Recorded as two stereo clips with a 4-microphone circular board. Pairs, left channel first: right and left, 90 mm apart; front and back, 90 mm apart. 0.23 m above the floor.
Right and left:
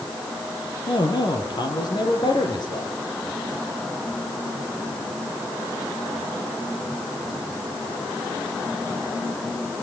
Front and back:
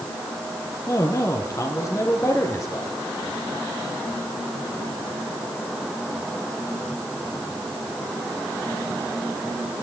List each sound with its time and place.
0.9 s a man speaking: 50° right, 6.5 m; by 2.9 s 55° right, 8 m